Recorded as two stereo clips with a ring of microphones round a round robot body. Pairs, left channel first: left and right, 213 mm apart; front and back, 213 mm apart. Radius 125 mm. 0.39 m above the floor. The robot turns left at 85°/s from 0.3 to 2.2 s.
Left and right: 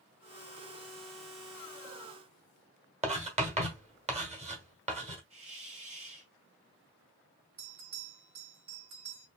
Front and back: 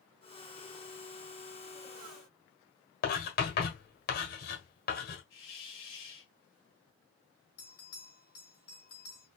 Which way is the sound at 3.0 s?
35° right.